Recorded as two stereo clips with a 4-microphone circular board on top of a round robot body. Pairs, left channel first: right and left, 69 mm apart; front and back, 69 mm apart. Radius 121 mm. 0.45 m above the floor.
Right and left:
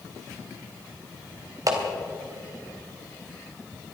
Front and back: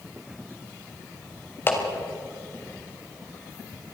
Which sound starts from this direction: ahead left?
A clap, at 1.7 s.